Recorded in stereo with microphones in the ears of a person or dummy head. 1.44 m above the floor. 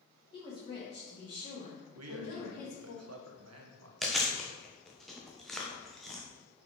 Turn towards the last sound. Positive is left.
turn(degrees=0)  # may be behind; listen again after turning